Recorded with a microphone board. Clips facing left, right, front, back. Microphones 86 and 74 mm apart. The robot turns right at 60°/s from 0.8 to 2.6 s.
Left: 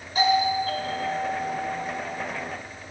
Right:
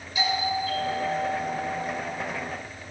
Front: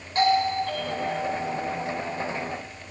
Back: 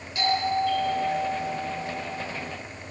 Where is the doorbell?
45° left, 6.5 m; by 1.9 s 115° left, 6.5 m.